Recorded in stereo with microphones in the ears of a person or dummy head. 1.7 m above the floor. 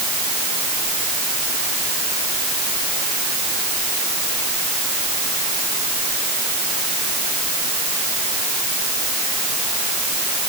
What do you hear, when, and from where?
Only background noise.